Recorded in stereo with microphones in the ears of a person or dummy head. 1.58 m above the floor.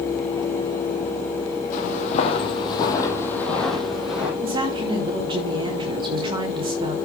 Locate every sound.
1.7 s footsteps: 50° left (ahead or behind), 3 m; by 4.3 s 5° right (ahead or behind), 3.5 m
4.4 s a woman speaking: 30° right (ahead or behind), 3 m